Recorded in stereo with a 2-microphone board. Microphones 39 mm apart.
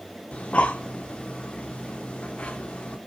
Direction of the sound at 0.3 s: 30° left (ahead or behind).